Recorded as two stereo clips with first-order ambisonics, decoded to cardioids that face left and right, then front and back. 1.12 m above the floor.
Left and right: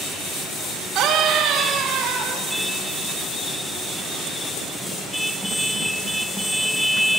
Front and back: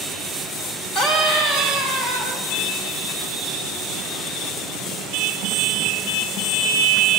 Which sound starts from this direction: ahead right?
A scream, at 0.9 s.